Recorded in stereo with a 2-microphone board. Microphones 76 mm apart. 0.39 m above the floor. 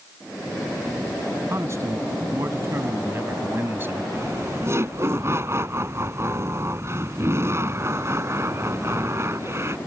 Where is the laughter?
35° right (ahead or behind).